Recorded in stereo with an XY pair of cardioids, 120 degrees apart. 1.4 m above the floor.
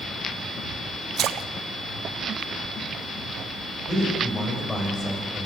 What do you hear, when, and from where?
1.2 s a splash: 60° right, 0.8 m
3.9 s a man speaking: 15° left, 8.5 m